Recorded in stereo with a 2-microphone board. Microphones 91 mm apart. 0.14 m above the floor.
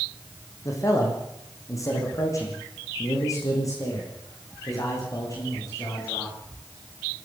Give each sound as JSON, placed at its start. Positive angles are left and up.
{"t": 0.7, "sound": "a man speaking", "side_deg": 35, "distance_m": 5.5}